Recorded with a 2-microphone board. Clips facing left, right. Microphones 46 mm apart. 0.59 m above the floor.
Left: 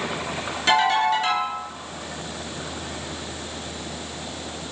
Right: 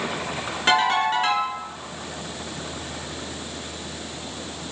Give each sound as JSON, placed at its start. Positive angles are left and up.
{"t": 0.7, "sound": "a ringtone", "side_deg": -30, "distance_m": 4.0}